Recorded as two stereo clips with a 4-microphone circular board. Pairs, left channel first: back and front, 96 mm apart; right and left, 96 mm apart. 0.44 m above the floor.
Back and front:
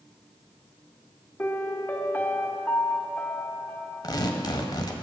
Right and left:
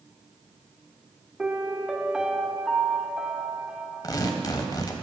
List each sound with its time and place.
1.4 s a piano: 155° left, 0.9 m
4.0 s tearing paper: 135° right, 1.1 m